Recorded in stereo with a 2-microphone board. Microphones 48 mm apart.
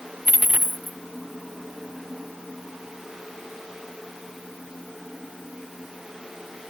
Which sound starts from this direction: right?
A dropped coin, at 0.2 s.